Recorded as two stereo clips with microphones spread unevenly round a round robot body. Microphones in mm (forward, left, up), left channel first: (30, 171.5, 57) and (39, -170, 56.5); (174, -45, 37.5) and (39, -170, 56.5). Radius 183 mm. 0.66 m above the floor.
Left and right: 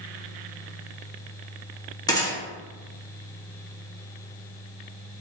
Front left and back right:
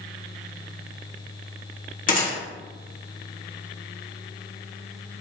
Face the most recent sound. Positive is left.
turn(degrees=15)